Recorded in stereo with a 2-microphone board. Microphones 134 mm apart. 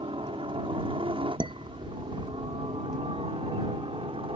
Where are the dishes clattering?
35° right (ahead or behind).